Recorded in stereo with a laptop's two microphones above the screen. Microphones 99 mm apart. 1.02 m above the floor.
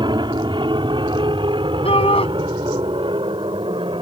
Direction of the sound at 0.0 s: 55° right (ahead or behind).